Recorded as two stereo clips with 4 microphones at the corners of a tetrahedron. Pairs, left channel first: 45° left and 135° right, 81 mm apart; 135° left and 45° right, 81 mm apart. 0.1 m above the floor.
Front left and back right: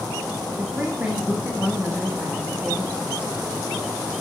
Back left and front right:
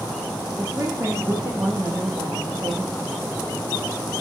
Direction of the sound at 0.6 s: 75° right.